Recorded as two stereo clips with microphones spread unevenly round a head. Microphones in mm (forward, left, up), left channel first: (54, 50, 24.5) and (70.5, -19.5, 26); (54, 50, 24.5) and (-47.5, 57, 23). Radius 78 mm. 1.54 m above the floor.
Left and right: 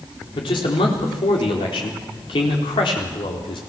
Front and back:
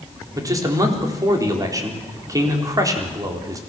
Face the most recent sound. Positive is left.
turn(degrees=120)